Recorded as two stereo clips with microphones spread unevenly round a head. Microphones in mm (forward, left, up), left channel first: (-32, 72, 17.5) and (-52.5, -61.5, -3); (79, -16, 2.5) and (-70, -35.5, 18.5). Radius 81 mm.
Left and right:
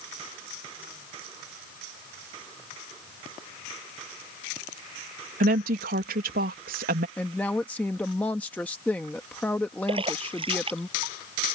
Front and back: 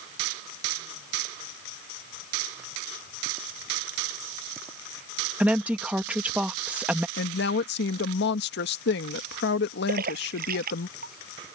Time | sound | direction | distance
5.4 | a woman speaking | 90° right | ?
7.2 | a woman speaking | straight ahead | ?
9.9 | a splash | 150° right | ?